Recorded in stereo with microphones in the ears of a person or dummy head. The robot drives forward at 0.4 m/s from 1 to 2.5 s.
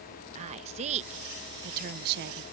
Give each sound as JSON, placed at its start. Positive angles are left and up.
{"t": 0.3, "sound": "a woman speaking", "side_deg": -40}